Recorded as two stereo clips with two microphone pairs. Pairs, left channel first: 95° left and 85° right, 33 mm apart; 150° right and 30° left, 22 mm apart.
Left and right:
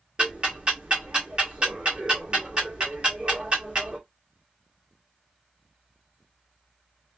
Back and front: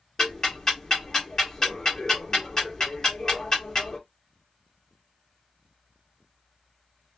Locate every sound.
0.2 s ticking: 110° right, 1.4 m